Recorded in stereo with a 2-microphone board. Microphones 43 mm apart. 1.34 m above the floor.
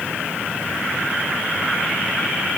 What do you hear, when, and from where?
Only background noise.